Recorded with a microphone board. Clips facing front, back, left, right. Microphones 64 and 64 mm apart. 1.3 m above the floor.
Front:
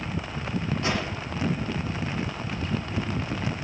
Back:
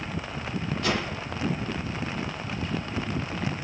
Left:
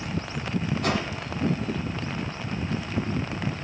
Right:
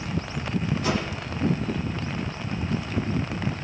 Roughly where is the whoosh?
Ahead left.